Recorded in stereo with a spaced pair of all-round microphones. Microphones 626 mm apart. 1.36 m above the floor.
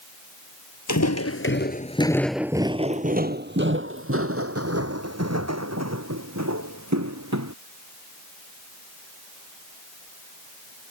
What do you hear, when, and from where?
0.9 s footsteps: 25° left (ahead or behind); by 7.5 s 25° right (ahead or behind)